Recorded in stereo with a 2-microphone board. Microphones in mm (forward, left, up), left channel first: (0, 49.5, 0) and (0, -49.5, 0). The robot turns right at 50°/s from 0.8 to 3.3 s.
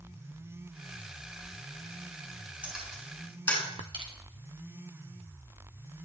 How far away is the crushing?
About 1.6 m.